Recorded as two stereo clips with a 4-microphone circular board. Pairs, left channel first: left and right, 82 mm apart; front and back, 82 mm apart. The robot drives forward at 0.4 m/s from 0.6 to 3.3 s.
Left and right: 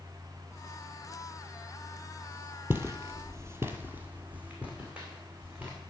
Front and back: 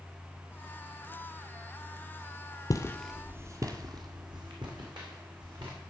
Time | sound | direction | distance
2.7 | footsteps | 30° right | 0.9 m